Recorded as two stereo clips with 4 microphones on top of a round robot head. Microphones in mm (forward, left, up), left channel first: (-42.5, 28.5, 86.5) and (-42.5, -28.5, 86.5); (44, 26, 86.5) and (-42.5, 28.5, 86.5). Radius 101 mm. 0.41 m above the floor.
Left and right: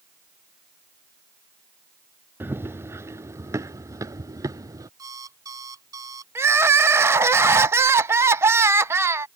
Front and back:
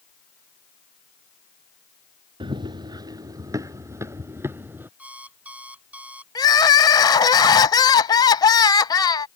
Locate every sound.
2.4 s running footsteps: 140° right; by 4.9 s 110° right
5.0 s an alarm clock: 105° right
6.3 s crying: 45° right